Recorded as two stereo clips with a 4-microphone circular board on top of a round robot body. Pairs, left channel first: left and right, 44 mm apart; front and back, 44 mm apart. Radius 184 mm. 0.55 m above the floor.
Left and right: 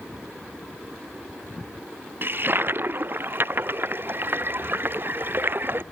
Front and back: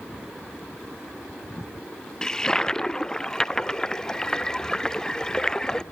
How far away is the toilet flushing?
About 1.1 m.